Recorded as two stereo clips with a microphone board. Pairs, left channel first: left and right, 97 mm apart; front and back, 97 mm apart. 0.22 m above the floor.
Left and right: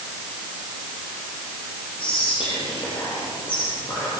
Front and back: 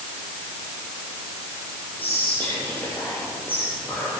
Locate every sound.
2.0 s whispering: 75° left, 5 m